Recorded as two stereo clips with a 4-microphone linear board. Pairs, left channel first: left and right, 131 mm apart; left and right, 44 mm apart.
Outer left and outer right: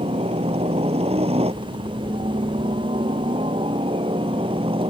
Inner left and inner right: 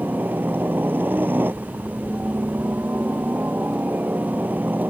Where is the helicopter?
50° right (ahead or behind); by 4.9 s 45° right (ahead or behind).